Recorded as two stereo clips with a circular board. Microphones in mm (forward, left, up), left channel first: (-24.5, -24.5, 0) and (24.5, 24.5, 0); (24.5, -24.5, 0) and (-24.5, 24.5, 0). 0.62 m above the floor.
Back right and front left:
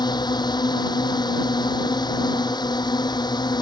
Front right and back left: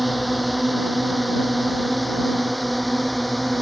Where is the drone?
135° right.